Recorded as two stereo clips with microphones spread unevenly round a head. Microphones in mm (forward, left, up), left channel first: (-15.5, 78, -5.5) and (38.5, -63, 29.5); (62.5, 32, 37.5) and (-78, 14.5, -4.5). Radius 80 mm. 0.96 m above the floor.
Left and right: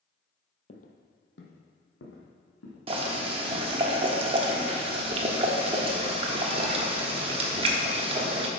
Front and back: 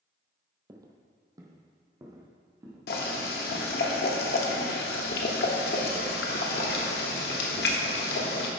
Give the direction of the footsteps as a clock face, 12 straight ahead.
8 o'clock.